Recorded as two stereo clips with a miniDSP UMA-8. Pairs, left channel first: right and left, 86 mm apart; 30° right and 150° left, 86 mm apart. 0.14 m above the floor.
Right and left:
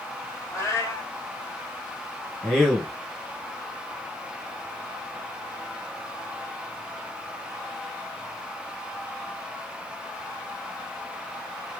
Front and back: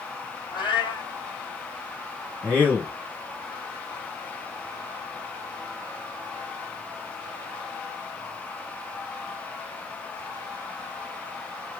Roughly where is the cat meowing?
Ahead right.